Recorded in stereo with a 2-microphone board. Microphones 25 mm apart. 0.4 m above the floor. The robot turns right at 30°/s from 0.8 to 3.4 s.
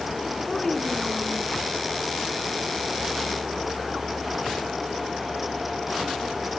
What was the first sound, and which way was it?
A child speaking, 20° left (ahead or behind).